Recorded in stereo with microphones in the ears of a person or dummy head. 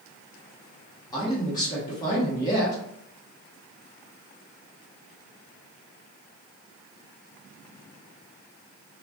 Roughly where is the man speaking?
Left.